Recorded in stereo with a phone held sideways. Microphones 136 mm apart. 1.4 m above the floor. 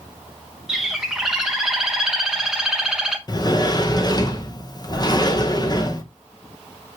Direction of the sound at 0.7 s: 5° right (ahead or behind).